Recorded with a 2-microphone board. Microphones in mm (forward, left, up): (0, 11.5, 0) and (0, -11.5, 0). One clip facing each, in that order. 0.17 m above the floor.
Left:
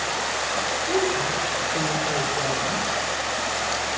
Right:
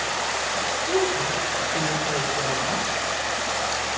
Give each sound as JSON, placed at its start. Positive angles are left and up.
{"t": 0.9, "sound": "a woman speaking", "side_deg": 5, "distance_m": 2.0}